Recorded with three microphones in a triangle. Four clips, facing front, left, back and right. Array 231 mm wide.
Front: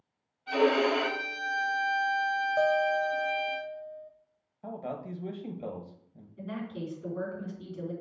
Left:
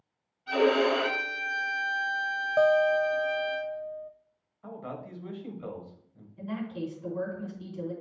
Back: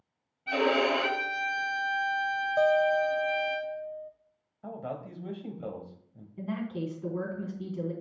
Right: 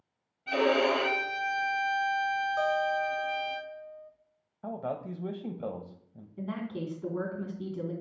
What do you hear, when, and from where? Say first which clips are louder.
0.5 s a violin: left 2 dB, front 1 dB; 145° right, 3.5 m
2.6 s a guitar: left 9 dB, back 3 dB; 110° left, 0.5 m
4.6 s a man speaking: right 5 dB, even; 80° right, 1.3 m
6.4 s a woman speaking: left 1 dB, back 3 dB; 115° right, 3 m